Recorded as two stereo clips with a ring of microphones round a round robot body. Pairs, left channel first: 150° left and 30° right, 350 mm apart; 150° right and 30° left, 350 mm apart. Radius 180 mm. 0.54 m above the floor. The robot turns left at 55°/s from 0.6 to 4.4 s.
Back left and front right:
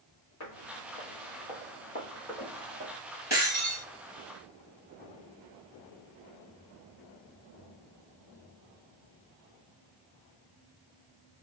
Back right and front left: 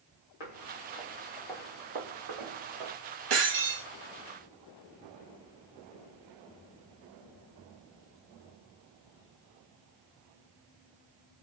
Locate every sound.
0.4 s footsteps: 165° right, 1.6 m; by 3.0 s 25° left, 2 m
3.3 s breaking glass: 50° left, 2.5 m; by 3.9 s 20° left, 2.5 m